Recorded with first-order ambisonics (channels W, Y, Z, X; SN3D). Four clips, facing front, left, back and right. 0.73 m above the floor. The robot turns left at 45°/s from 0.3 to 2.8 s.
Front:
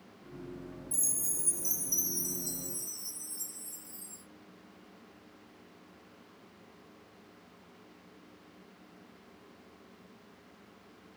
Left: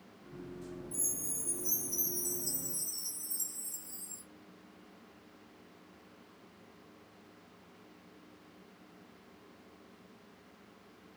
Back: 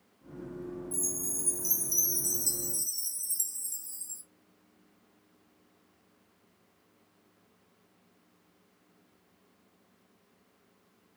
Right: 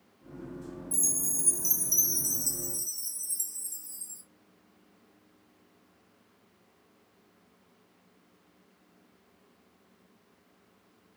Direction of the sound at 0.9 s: 70° right.